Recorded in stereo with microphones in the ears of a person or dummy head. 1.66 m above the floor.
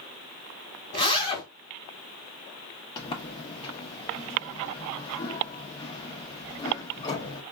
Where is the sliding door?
30° left (ahead or behind), 0.9 m.